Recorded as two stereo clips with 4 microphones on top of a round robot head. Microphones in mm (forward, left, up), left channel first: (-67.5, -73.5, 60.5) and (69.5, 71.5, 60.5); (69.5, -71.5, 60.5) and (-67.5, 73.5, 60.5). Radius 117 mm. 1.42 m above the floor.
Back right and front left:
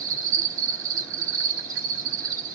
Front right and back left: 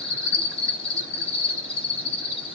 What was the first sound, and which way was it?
An insect, 10° left.